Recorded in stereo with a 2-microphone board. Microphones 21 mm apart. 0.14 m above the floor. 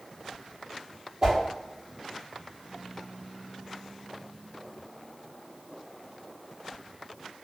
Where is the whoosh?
30° right (ahead or behind), 1.5 m.